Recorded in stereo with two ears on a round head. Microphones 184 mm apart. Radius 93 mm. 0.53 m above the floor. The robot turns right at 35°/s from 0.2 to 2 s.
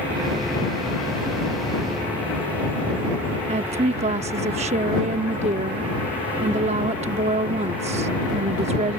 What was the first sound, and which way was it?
A woman speaking, 30° right (ahead or behind).